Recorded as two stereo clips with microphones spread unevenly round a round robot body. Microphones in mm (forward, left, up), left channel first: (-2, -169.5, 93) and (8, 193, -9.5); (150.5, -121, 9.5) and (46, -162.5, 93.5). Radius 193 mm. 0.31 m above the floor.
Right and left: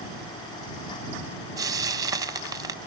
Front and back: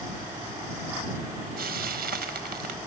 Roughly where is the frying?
Behind.